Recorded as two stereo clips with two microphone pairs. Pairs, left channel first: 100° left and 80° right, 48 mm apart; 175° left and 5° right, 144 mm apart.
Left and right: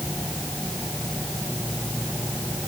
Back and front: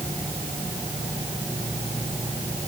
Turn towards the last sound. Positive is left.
No sound to turn to.